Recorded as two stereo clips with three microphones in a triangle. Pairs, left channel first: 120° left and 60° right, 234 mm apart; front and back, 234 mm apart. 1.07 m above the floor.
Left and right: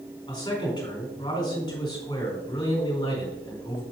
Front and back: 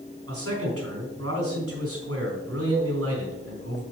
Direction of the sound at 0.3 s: 170° right.